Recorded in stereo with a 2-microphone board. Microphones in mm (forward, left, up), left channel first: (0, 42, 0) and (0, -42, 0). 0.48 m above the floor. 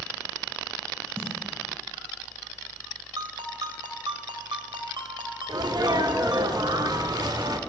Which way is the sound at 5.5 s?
55° right (ahead or behind).